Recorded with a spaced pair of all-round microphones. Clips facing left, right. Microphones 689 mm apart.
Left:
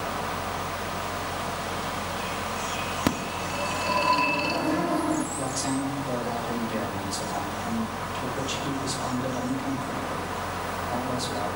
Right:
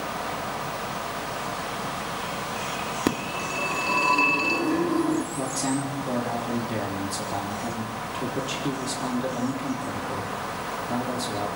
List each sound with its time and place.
0.0 s a fan: 60° left (ahead or behind), 8.5 m
3.1 s a phone ringing: 20° left (ahead or behind), 1.8 m
5.3 s a man speaking: 80° right, 4 m